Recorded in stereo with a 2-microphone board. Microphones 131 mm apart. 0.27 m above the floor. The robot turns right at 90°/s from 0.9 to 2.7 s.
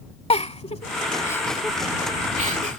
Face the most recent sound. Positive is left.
turn(degrees=-65)  # may be behind; listen again after turning